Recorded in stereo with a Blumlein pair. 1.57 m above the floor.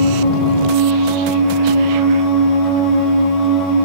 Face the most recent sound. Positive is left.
turn(degrees=30)